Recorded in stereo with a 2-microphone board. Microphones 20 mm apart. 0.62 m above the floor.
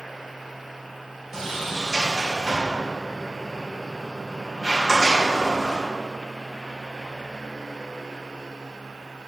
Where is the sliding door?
35° right (ahead or behind), 2.5 m.